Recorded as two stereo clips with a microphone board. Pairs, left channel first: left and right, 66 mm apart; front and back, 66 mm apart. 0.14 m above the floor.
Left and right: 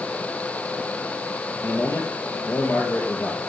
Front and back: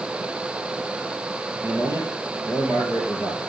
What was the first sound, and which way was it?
A man speaking, 130° left.